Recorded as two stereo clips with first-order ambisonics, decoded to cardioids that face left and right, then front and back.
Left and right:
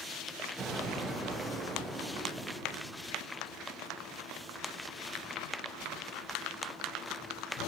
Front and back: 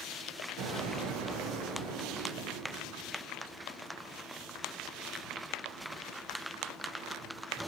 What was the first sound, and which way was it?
An explosion, 175° right.